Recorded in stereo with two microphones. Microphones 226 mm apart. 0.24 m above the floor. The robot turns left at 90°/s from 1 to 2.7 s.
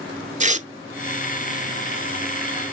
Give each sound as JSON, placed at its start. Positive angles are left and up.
{"t": 0.4, "sound": "tearing paper", "side_deg": -35, "distance_m": 0.7}